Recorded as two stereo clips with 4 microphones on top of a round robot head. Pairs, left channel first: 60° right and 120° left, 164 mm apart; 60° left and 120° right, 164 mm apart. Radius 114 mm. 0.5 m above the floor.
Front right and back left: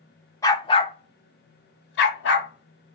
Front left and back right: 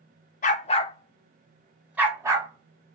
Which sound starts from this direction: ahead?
A dog barking, at 0.4 s.